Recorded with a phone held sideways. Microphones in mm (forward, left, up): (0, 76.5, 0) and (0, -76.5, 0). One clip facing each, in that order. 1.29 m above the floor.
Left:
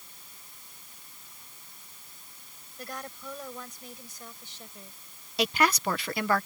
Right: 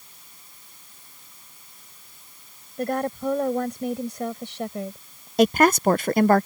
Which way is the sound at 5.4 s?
45° right (ahead or behind).